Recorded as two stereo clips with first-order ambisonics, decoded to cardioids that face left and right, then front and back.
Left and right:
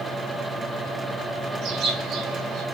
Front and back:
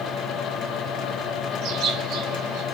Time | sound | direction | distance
1.6 | a bird | 140° right | 4 m